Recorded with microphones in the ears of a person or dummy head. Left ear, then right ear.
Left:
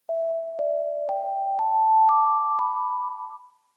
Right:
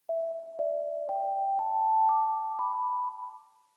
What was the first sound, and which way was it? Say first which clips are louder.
An alarm: left 6 dB; 65° left (ahead or behind).